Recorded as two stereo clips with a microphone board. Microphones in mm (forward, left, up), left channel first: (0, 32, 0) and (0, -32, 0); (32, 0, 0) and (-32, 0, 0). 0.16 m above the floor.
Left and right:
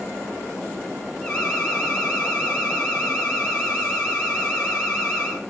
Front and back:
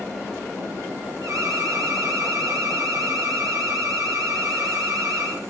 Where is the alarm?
165° left, 5.5 m.